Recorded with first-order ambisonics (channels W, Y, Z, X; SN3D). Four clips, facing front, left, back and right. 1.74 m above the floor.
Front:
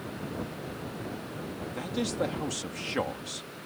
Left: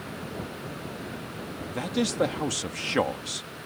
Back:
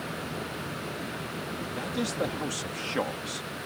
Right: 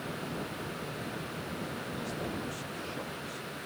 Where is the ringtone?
I don't hear a ringtone.